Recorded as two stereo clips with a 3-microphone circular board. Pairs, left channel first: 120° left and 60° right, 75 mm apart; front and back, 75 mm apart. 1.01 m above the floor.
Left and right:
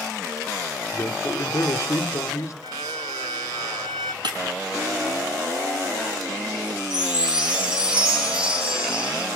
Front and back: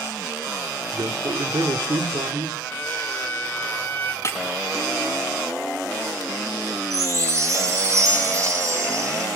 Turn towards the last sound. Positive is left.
turn(degrees=-135)